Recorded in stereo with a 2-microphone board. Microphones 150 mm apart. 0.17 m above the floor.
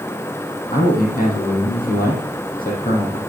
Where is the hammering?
I don't hear hammering.